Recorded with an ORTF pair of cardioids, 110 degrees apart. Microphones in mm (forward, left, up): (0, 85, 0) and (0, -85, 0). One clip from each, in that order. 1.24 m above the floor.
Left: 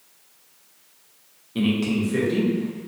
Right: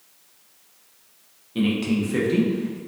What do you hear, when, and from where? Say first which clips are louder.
1.6 s a man speaking: even; 5° left, 0.9 m; by 2.8 s 20° right, 1.5 m